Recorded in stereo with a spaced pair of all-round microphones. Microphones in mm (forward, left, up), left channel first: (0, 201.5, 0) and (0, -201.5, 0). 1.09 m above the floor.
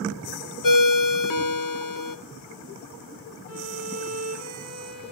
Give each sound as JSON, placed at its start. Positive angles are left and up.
{"t": 0.6, "sound": "a ringtone", "side_deg": 55, "distance_m": 0.6}
{"t": 3.5, "sound": "a violin", "side_deg": -35, "distance_m": 1.5}